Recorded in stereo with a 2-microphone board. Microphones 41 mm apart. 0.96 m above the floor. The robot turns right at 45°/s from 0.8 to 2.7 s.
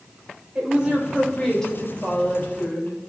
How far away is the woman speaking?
About 3.5 m.